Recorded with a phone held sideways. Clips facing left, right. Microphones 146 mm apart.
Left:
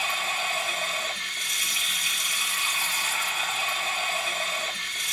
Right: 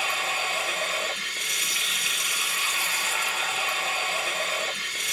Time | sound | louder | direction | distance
0.0 | running water | right 1 dB | 65° right (ahead or behind) | 1.9 m